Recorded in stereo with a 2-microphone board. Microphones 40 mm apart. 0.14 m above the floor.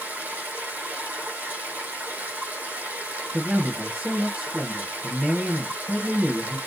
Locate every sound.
0.0 s running water: 50° right (ahead or behind), 2.5 m
3.3 s a man speaking: 30° right (ahead or behind), 2.5 m